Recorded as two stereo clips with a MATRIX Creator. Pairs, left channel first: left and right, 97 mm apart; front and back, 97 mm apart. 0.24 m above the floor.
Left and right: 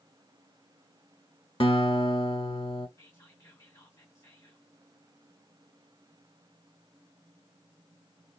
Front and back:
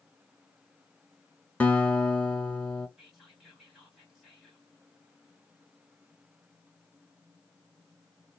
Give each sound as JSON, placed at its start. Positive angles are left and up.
{"t": 1.6, "sound": "a guitar", "azimuth_deg": 75, "distance_m": 0.9}
{"t": 3.0, "sound": "whispering", "azimuth_deg": 95, "distance_m": 1.8}